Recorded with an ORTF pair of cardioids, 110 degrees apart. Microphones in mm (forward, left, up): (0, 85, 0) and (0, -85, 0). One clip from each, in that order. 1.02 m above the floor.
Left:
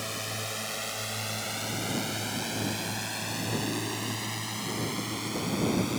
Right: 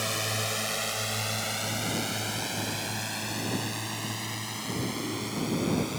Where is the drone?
35° right; by 6.0 s 5° left.